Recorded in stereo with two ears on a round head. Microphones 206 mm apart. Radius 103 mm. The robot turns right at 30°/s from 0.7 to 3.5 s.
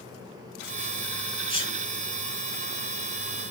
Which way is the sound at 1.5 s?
65° right (ahead or behind).